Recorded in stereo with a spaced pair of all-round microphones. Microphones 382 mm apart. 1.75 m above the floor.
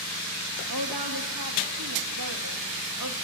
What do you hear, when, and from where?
0.7 s a woman speaking: 65° right (ahead or behind), 3 m